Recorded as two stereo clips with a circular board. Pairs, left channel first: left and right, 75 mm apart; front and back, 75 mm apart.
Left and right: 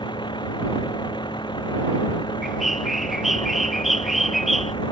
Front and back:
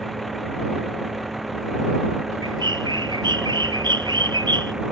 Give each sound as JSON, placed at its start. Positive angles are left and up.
{"t": 0.0, "sound": "a vehicle", "azimuth_deg": 90}
{"t": 2.4, "sound": "a bird", "azimuth_deg": -175}